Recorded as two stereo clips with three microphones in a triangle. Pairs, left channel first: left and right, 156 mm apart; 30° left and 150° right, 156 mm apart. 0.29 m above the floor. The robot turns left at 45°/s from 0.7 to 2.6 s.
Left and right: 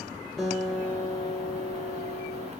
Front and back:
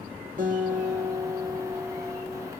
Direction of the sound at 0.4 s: 175° left.